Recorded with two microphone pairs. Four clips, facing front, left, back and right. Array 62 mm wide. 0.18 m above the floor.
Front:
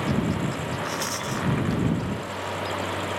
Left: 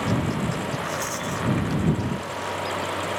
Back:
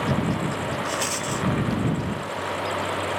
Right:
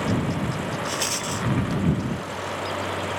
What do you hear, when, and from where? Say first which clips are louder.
0.8 s a rattle: even, back 2 dB; 125° right